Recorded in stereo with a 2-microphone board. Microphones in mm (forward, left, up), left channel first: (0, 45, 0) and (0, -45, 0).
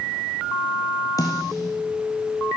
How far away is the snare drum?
About 3 m.